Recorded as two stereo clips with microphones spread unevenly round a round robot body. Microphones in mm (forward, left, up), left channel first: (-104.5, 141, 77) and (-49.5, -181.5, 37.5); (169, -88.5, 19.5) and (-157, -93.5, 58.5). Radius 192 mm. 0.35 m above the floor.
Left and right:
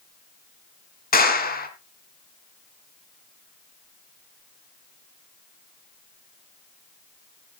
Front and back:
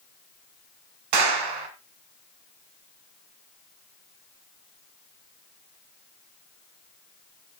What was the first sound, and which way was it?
A clap, 165° left.